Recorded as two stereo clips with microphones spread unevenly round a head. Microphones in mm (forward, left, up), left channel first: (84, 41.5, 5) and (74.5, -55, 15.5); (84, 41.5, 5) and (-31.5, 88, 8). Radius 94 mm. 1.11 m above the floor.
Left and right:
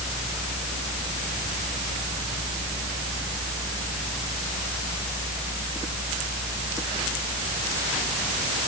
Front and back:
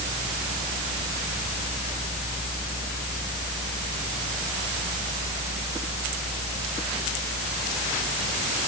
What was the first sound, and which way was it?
Only background noise.